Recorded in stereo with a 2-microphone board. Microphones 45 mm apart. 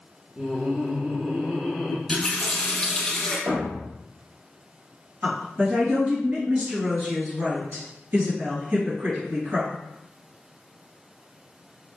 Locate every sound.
0.4 s laughter: 15° right (ahead or behind), 1.0 m
2.1 s a running tap: 10° left (ahead or behind), 1.5 m
3.5 s a thud: 75° right (ahead or behind), 1.2 m
5.2 s a woman speaking: 45° right (ahead or behind), 1.9 m